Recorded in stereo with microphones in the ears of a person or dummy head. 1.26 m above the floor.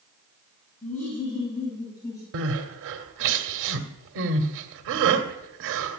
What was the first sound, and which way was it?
Laughter, 10° left (ahead or behind).